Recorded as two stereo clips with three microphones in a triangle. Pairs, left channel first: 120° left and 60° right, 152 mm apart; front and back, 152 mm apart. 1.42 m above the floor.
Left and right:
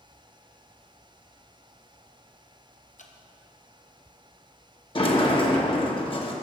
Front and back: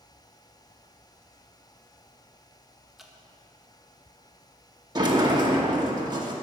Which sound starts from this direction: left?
Dripping, at 3.0 s.